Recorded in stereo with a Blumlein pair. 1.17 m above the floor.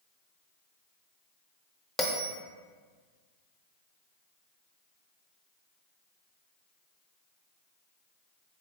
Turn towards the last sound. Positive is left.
turn(degrees=10)